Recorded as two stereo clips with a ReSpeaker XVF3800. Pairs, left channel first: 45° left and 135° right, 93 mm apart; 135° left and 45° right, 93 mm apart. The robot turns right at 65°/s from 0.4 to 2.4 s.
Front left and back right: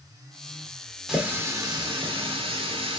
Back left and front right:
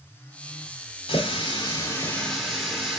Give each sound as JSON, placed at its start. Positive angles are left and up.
{"t": 1.1, "sound": "a running tap", "azimuth_deg": 140, "distance_m": 1.5}